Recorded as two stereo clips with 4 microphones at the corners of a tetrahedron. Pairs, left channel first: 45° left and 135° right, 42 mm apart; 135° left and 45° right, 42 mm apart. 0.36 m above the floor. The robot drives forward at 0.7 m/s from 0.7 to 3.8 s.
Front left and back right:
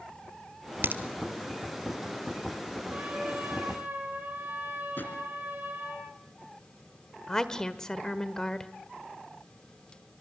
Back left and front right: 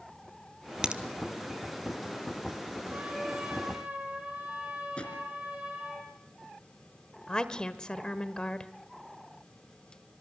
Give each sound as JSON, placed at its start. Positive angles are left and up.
{"t": 0.8, "sound": "a crack", "azimuth_deg": -110, "distance_m": 1.2}
{"t": 2.9, "sound": "a trumpet", "azimuth_deg": -90, "distance_m": 5.5}
{"t": 5.0, "sound": "a drawer", "azimuth_deg": 75, "distance_m": 3.0}
{"t": 7.3, "sound": "a woman speaking", "azimuth_deg": 100, "distance_m": 1.3}